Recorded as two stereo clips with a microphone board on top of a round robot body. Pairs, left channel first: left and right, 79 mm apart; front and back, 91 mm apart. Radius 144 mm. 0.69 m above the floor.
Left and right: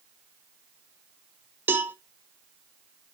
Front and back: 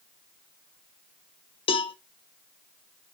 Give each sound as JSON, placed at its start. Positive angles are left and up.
{"t": 1.7, "sound": "a cowbell", "azimuth_deg": -25, "distance_m": 0.5}